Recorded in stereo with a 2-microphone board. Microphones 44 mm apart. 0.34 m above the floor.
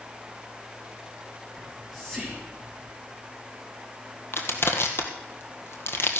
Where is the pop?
I don't hear a pop.